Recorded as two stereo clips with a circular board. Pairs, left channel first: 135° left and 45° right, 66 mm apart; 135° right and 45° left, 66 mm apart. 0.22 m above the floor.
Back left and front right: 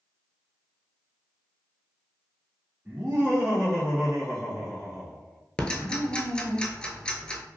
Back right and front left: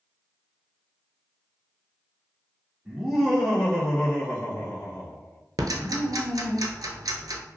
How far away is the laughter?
About 1.1 m.